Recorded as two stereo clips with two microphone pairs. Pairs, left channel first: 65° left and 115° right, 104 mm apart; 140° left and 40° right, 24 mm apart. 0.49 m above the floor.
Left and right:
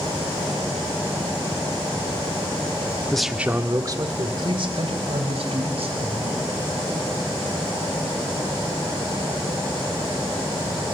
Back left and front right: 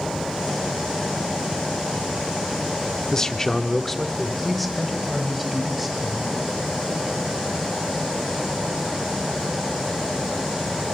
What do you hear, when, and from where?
3.1 s a man speaking: 135° left, 1.2 m; by 6.5 s 125° right, 5 m